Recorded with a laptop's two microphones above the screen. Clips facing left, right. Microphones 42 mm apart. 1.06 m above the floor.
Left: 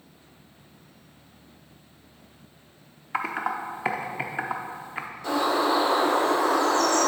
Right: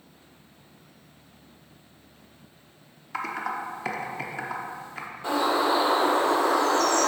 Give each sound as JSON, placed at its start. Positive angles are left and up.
{"t": 3.1, "sound": "typing on a keyboard", "side_deg": 30, "distance_m": 0.7}
{"t": 5.2, "sound": "a bird", "side_deg": -25, "distance_m": 2.5}